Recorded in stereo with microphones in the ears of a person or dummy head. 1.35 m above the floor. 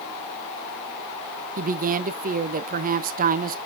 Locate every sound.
1.6 s a woman speaking: 45° right (ahead or behind), 0.6 m